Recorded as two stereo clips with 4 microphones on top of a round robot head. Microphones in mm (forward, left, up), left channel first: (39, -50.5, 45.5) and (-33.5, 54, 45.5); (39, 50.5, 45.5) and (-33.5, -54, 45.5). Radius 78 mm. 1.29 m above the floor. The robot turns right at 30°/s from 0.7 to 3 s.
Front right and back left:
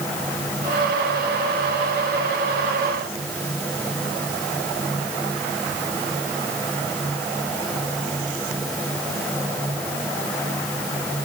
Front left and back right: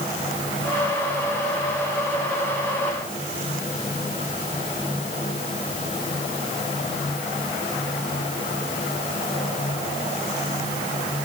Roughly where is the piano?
No piano in this recording.